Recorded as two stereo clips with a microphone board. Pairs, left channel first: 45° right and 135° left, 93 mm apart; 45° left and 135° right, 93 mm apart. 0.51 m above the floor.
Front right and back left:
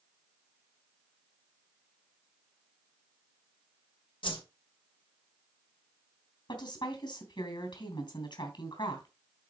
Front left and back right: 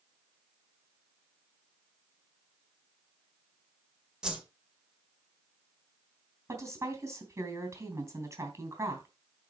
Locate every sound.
4.2 s a whoosh: 55° right, 1.7 m
6.5 s a woman speaking: 75° right, 3 m